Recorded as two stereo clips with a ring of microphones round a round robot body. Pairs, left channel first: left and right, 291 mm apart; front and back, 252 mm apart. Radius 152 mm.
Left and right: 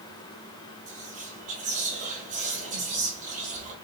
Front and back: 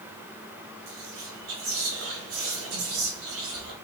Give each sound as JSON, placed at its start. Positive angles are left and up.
{"t": 0.9, "sound": "whispering", "azimuth_deg": -155, "distance_m": 1.8}